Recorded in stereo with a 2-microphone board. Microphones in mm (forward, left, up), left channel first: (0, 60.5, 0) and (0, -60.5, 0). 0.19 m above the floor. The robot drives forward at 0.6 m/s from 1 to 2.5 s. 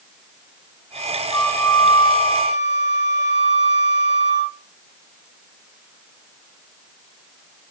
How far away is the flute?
About 1.1 m.